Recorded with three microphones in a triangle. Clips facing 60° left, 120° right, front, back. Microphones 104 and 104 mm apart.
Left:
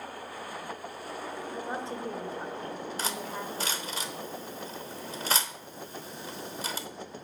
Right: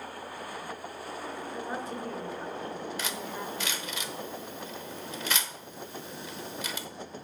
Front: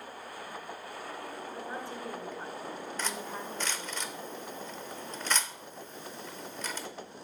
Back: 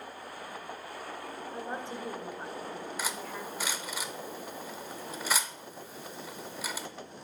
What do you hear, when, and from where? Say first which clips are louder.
1.5 s a woman speaking: left 1 dB, back 3 dB; 125° left, 1.3 m; by 4.0 s 50° left, 1.4 m
3.0 s cutlery clinking: left 1 dB, front 1 dB; 100° left, 0.8 m